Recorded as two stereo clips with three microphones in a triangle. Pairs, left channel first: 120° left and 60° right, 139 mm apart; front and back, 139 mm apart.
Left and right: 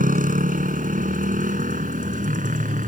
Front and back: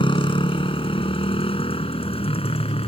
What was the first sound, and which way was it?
A motorcycle, 50° right.